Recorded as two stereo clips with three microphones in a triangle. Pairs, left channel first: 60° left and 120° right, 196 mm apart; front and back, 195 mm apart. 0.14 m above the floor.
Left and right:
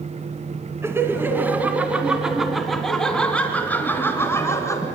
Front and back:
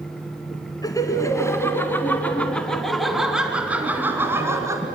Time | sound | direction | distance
0.8 | laughter | 55° right | 1.9 m